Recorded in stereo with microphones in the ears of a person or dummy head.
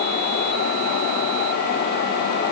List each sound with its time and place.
Only background noise.